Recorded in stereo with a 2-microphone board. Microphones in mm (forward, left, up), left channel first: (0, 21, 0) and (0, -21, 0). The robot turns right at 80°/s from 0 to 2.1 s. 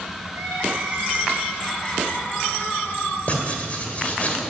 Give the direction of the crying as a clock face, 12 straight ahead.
3 o'clock.